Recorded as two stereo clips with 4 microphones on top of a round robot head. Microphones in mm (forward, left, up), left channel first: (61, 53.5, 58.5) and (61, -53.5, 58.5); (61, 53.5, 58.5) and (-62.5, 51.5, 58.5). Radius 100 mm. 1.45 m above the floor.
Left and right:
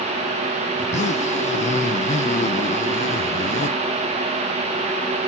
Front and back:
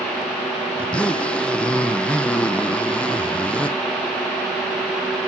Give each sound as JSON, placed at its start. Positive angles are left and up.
{"t": 0.8, "sound": "a zipper", "azimuth_deg": 85, "distance_m": 0.8}